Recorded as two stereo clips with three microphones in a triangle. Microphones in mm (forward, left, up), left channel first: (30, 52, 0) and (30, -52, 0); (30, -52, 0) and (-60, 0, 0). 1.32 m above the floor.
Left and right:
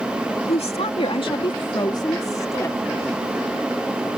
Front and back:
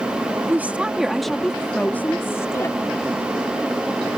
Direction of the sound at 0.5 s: 80° left.